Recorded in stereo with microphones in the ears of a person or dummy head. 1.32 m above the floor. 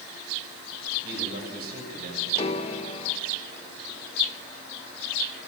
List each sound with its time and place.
1.0 s a man speaking: 65° right (ahead or behind), 7 m
2.4 s a piano: 30° left (ahead or behind), 1.4 m